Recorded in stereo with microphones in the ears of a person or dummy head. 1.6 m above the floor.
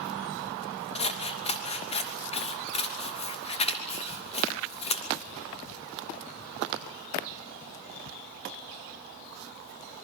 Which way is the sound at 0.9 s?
35° left (ahead or behind).